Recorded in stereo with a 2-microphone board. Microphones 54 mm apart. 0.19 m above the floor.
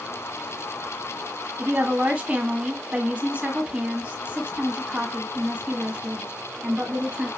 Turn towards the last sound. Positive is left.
turn(degrees=-25)  # may be behind; listen again after turning